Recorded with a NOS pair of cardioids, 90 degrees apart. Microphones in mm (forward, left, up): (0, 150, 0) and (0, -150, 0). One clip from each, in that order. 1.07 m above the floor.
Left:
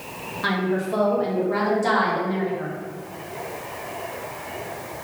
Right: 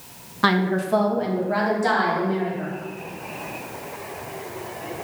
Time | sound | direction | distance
0.4 | a woman speaking | 45° right | 0.7 m